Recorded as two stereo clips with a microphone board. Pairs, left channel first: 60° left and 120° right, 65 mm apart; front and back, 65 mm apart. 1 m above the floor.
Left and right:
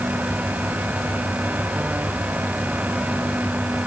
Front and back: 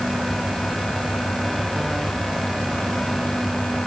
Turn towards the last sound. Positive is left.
No sound to turn to.